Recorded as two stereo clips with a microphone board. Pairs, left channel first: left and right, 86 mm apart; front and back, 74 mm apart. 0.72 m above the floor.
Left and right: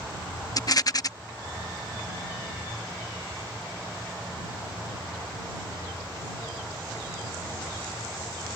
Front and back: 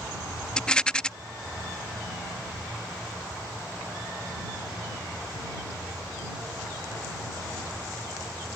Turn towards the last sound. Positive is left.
turn(degrees=70)